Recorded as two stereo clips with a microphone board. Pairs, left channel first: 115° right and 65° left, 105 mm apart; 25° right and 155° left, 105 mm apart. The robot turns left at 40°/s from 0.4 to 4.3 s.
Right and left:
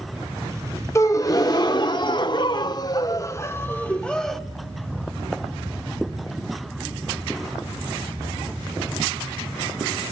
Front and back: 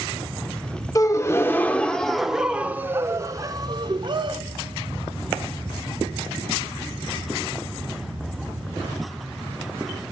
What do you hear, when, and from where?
0.9 s a gasp: 65° right, 0.7 m; by 4.4 s 165° left, 0.7 m